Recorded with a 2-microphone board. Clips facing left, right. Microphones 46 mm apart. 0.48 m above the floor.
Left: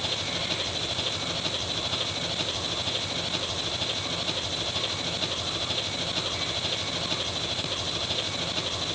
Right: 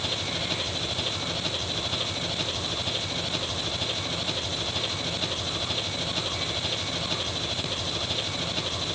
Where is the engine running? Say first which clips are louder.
Even; centre (ahead or behind).